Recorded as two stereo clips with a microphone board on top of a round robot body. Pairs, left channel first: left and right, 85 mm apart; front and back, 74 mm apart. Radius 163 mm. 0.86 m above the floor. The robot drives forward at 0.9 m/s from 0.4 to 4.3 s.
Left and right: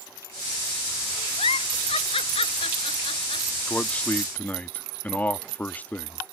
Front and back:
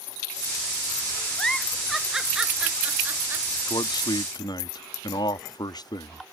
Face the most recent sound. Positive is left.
turn(degrees=20)